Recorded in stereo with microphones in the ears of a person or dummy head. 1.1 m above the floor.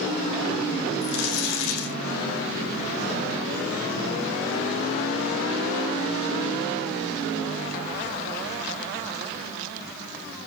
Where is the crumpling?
75° left (ahead or behind), 3.5 m.